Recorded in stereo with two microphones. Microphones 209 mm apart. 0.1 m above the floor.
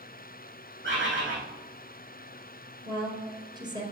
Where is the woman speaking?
20° right (ahead or behind), 2.5 m.